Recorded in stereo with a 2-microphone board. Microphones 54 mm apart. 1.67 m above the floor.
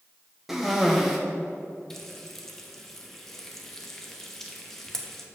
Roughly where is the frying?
Centre.